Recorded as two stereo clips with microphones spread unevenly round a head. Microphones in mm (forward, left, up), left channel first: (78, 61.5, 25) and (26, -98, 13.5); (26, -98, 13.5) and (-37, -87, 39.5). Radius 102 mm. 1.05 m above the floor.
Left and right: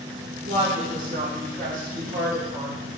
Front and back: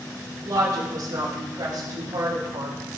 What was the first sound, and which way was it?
A woman speaking, 165° right.